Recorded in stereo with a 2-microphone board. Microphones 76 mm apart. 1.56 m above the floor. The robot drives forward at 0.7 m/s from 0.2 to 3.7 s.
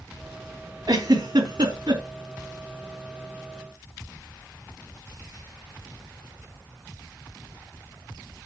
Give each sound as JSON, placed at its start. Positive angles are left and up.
{"t": 0.9, "sound": "a giggle", "side_deg": -55, "distance_m": 4.0}